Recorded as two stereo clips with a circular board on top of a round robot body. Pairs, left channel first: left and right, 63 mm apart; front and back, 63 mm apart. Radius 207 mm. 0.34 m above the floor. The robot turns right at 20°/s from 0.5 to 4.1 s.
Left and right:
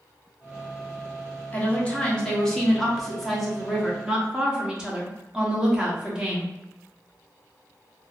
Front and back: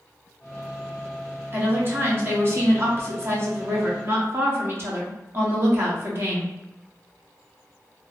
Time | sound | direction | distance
1.5 | a woman speaking | 145° left | 1.4 m